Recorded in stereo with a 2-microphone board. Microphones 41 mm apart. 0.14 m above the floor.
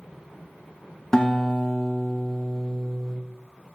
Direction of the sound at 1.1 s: 15° left (ahead or behind).